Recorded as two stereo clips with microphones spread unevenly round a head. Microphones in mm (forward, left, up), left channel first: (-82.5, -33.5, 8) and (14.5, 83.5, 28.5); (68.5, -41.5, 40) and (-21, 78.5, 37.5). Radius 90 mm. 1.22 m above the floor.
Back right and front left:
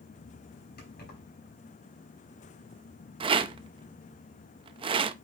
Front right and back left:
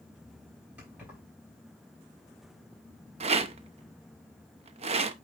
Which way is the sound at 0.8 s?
150° right.